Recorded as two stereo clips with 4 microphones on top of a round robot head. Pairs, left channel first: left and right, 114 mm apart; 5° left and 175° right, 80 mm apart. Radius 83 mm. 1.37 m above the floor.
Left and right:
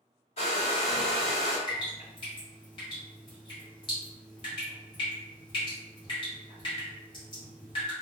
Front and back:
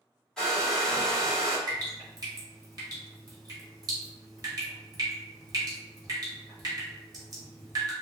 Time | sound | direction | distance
0.4 | a hair dryer | 85° left | 1.1 m
1.7 | dripping | 145° left | 1.0 m